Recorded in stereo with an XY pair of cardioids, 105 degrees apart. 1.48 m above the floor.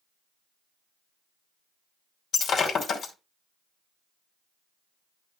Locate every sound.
2.3 s breaking glass: 55° left, 2.5 m